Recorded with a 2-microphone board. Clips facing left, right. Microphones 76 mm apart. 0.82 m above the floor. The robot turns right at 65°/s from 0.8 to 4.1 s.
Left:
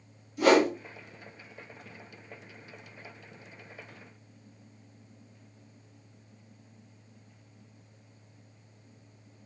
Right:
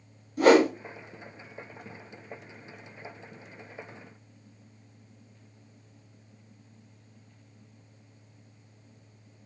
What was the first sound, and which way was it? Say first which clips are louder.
A whoosh: right 3 dB; 50° right (ahead or behind).